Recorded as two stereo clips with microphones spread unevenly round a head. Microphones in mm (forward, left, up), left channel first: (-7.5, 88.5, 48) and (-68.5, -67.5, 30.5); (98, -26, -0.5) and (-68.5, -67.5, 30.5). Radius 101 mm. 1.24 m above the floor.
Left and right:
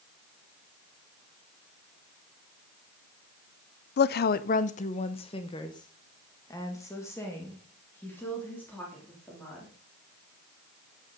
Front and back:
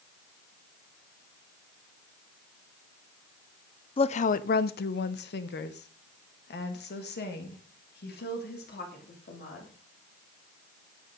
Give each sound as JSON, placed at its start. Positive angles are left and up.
{"t": 4.0, "sound": "a woman speaking", "azimuth_deg": 60, "distance_m": 0.6}